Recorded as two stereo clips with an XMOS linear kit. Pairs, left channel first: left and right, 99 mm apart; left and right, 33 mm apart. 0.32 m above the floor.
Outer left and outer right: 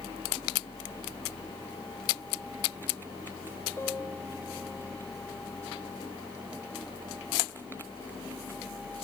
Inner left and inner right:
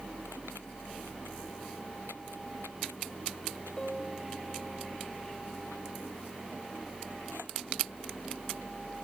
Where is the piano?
25° left (ahead or behind).